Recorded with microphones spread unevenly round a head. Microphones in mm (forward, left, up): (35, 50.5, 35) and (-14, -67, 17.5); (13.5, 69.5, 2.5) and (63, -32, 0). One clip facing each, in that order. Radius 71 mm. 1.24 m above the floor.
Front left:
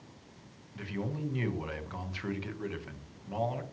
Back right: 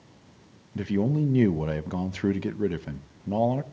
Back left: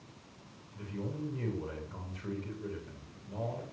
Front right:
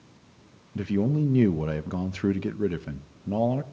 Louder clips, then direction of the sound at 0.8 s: Back right 12 dB, front right 14 dB; 75° right.